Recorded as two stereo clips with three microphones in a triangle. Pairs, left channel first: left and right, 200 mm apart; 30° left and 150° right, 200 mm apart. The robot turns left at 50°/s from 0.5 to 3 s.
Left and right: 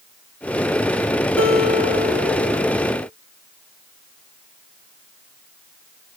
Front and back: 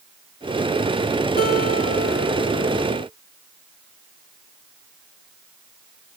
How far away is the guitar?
About 0.9 m.